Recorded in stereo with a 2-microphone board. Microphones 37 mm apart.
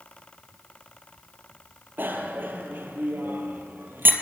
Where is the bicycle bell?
70° right (ahead or behind), 2.5 m.